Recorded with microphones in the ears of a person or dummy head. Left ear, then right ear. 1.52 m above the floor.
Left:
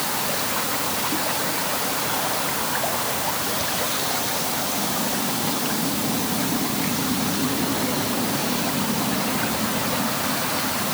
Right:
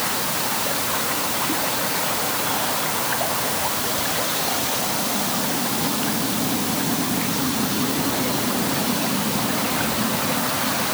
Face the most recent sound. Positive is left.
No sound to turn to.